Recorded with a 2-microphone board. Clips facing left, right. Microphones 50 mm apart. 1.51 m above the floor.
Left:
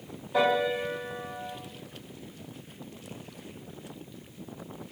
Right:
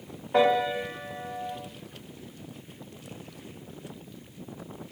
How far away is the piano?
About 0.8 m.